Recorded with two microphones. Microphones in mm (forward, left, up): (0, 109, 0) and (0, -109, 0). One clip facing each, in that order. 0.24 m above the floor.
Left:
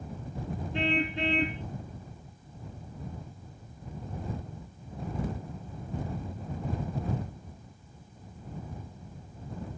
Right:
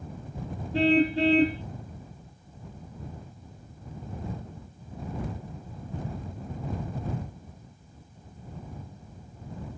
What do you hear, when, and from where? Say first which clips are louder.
0.7 s a car horn: right 9 dB; 35° right (ahead or behind)